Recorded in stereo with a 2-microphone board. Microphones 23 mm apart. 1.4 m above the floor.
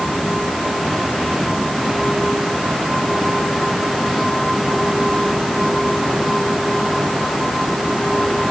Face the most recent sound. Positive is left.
No sound to turn to.